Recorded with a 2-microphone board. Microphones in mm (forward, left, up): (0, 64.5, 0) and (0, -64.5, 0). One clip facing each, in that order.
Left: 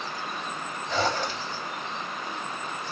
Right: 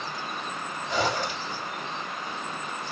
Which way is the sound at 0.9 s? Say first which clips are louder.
Even; 10° right (ahead or behind).